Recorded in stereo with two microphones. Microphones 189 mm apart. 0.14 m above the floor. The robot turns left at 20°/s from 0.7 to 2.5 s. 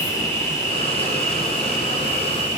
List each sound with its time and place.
0.0 s an insect: 15° left, 1.1 m; by 2.6 s 20° right, 1.1 m